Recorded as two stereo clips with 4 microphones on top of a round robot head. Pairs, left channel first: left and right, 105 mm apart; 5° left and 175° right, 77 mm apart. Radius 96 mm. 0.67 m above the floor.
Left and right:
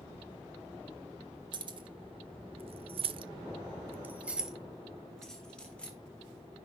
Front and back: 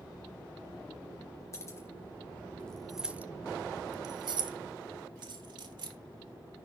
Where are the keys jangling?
45° right, 1.2 m; by 6.0 s 170° left, 1.7 m.